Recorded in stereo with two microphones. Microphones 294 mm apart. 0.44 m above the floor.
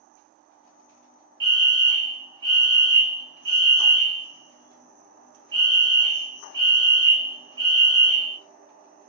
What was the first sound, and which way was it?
A fire alarm, 15° left (ahead or behind).